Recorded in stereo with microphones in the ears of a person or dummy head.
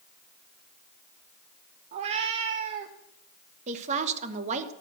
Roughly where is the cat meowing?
Right.